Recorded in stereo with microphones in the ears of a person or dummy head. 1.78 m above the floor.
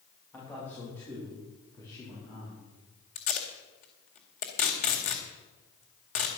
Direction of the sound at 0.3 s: 10° left (ahead or behind).